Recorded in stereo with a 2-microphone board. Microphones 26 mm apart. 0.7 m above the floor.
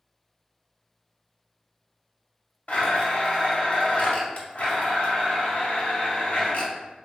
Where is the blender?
60° left (ahead or behind), 0.9 m.